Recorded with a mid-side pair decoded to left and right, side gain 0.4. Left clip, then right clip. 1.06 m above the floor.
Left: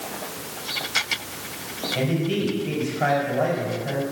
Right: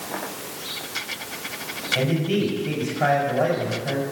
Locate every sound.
1.9 s a man speaking: 20° right, 5 m